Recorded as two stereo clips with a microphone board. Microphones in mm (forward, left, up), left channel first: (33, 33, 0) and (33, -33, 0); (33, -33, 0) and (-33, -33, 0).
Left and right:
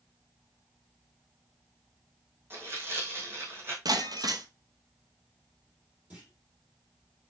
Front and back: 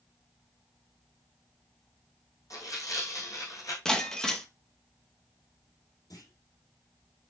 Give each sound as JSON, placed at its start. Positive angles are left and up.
{"t": 2.5, "sound": "tearing paper", "azimuth_deg": -35, "distance_m": 3.0}
{"t": 3.9, "sound": "breaking glass", "azimuth_deg": -80, "distance_m": 1.0}
{"t": 6.1, "sound": "a clunk", "azimuth_deg": -25, "distance_m": 3.5}